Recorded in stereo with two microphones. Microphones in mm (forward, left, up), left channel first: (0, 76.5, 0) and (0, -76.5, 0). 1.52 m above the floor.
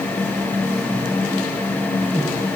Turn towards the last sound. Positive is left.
No sound to turn to.